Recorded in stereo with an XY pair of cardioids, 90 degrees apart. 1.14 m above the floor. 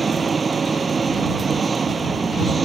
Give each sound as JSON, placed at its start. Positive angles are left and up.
{"t": 0.0, "sound": "an engine running", "azimuth_deg": -40}